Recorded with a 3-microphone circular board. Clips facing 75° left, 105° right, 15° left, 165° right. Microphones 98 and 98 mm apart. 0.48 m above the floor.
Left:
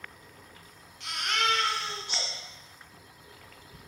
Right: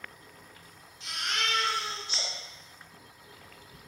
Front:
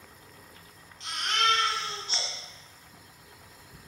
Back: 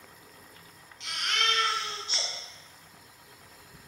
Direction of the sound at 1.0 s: 60° left.